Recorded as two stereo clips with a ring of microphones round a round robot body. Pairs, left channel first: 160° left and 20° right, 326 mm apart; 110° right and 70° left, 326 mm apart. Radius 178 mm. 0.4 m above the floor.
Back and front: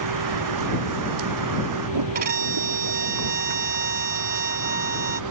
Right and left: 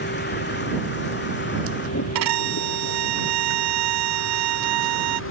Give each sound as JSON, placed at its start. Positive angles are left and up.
{"t": 0.0, "sound": "a vehicle", "azimuth_deg": -50}
{"t": 2.1, "sound": "a violin", "azimuth_deg": 45}